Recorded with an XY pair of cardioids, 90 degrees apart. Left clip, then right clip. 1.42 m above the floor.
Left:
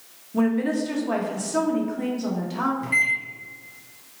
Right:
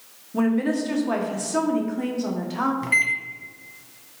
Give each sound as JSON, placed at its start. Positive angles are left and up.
{"t": 0.3, "sound": "a woman speaking", "azimuth_deg": -10, "distance_m": 0.9}
{"t": 2.8, "sound": "a microwave", "azimuth_deg": -50, "distance_m": 0.8}